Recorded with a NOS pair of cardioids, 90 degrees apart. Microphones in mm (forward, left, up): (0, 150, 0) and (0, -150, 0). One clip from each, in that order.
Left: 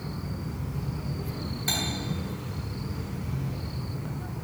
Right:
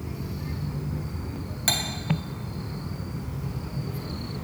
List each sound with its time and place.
1.7 s cutlery clinking: 55° right, 0.9 m